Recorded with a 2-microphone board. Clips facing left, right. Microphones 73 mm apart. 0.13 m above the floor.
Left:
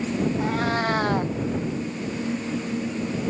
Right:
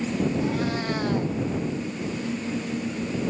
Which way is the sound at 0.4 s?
55° left (ahead or behind).